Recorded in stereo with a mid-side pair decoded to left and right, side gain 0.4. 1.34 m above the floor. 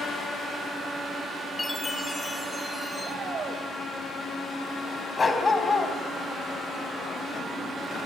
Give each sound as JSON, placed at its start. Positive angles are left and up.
{"t": 1.6, "sound": "a chime", "azimuth_deg": 25, "distance_m": 3.0}
{"t": 3.0, "sound": "a shout", "azimuth_deg": -50, "distance_m": 6.5}
{"t": 5.2, "sound": "a dog barking", "azimuth_deg": 35, "distance_m": 4.5}